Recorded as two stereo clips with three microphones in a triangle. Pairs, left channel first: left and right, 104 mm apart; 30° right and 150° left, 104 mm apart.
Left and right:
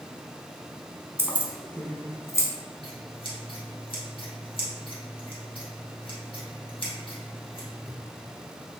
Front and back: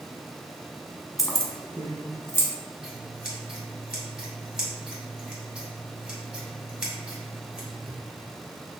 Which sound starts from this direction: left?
Scissors, at 2.8 s.